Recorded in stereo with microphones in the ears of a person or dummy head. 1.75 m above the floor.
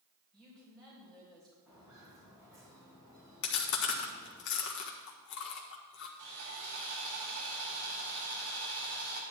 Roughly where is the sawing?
Right.